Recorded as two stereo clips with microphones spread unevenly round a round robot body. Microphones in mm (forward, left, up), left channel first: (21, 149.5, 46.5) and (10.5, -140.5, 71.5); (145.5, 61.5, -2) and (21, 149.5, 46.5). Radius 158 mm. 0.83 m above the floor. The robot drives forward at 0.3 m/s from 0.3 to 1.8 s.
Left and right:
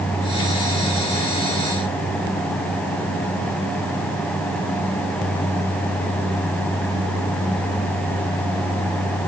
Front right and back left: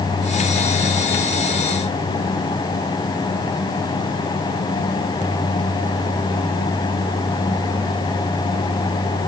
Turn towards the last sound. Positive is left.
No sound to turn to.